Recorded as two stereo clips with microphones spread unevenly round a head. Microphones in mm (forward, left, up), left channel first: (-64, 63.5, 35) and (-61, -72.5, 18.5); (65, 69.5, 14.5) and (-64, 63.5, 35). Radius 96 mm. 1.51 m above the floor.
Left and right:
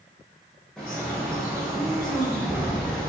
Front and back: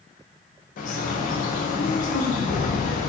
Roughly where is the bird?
Ahead.